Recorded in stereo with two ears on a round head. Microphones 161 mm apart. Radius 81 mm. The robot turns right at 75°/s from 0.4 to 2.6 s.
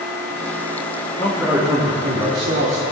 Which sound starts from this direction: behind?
A man speaking, at 1.2 s.